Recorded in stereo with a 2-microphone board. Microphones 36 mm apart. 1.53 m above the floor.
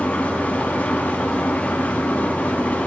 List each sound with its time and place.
0.0 s an engine running: 45° left (ahead or behind), 6.5 m